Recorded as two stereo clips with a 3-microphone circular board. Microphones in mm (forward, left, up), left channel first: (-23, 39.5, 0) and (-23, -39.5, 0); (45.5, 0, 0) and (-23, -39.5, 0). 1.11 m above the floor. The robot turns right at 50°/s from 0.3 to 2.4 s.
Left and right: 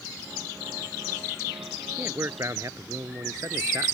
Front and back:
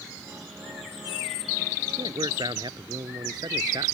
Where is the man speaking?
160° right; by 4.0 s 135° right.